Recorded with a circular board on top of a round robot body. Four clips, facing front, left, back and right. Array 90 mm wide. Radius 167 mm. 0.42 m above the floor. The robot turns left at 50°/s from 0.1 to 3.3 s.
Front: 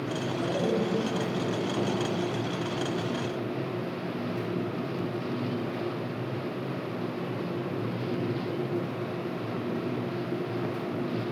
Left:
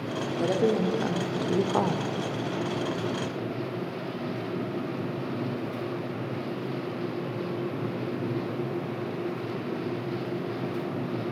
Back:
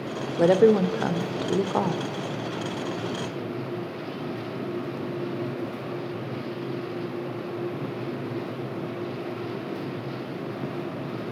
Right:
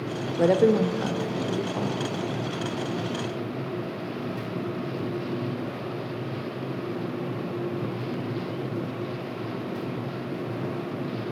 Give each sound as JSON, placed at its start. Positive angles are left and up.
{"t": 0.4, "sound": "a woman speaking", "azimuth_deg": -150, "distance_m": 1.7}